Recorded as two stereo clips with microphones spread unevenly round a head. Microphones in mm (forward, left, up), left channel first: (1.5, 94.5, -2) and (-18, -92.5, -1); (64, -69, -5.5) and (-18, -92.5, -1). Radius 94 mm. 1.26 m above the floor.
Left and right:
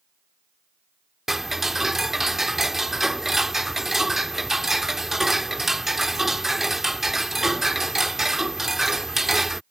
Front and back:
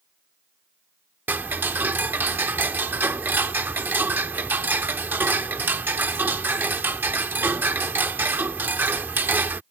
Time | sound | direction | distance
1.3 | ticking | straight behind | ?